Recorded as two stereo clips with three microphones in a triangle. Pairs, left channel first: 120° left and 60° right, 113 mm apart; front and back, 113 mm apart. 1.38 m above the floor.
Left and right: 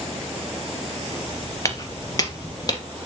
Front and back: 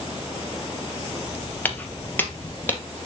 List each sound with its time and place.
1.6 s footsteps: 70° left, 1.9 m